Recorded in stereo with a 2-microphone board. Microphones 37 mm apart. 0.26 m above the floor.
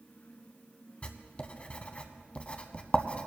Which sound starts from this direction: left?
Writing, at 1.0 s.